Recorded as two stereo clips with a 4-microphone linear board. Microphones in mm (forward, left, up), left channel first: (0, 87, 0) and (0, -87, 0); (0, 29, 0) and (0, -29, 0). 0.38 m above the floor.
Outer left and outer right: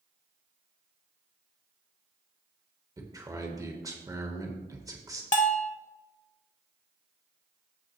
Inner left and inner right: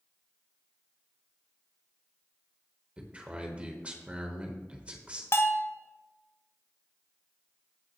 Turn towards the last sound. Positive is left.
turn(degrees=45)  # may be behind; listen again after turning